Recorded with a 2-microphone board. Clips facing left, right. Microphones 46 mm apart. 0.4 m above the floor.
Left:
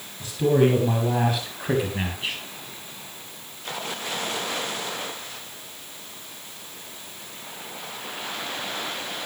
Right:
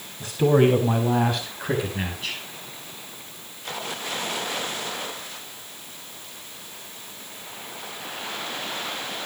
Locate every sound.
0.2 s a man speaking: 25° right (ahead or behind), 3.5 m; by 2.4 s 25° left (ahead or behind), 4 m